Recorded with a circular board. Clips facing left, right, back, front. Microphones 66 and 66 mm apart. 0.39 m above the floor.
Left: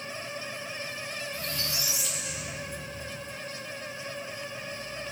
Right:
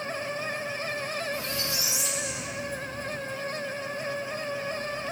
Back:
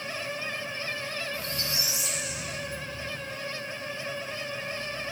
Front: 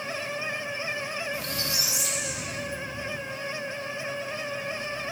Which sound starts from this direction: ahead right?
A squeak, at 1.3 s.